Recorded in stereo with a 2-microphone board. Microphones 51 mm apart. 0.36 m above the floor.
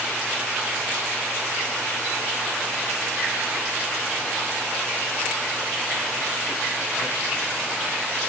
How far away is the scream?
No scream in this recording.